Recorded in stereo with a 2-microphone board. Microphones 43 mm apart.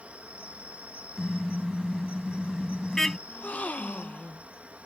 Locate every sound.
0.0 s an insect: 35° right (ahead or behind)
1.2 s a car horn: 10° left (ahead or behind)
3.3 s a gasp: 40° left (ahead or behind)